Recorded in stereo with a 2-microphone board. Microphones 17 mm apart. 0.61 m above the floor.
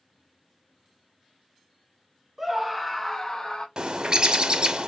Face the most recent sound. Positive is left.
turn(degrees=-45)  # may be behind; listen again after turning